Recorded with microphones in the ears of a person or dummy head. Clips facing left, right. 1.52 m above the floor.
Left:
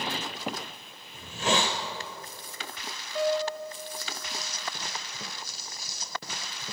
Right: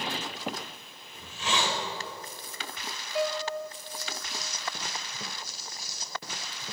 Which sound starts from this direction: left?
A hiss, at 1.1 s.